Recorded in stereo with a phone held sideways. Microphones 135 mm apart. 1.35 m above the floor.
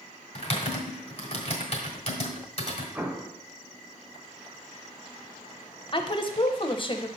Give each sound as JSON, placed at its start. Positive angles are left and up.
{"t": 0.3, "sound": "typing on a keyboard", "side_deg": 45, "distance_m": 1.5}
{"t": 3.0, "sound": "an explosion", "side_deg": -15, "distance_m": 0.9}
{"t": 5.9, "sound": "a woman speaking", "side_deg": 35, "distance_m": 0.6}